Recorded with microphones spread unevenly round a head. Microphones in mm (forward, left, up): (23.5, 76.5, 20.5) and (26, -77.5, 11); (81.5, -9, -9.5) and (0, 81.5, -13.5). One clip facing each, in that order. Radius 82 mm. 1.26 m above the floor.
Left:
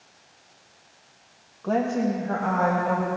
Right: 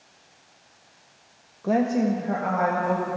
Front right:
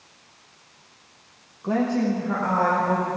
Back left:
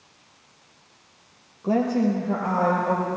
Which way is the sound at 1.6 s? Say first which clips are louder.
Right 2 dB, back left 1 dB; 160° right.